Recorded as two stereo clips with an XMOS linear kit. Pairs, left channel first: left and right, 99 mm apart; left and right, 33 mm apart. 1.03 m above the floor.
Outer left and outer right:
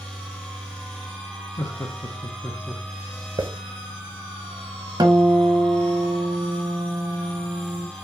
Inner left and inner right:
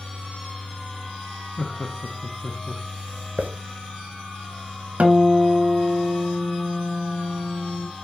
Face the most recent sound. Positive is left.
turn(degrees=-45)  # may be behind; listen again after turning